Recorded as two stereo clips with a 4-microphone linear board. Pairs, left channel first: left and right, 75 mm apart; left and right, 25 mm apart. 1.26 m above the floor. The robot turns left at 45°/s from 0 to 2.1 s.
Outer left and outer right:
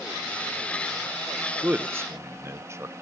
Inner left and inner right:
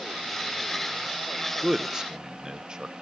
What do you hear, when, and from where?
1.6 s a man speaking: 20° right (ahead or behind), 0.7 m; by 2.9 s 35° right (ahead or behind), 0.7 m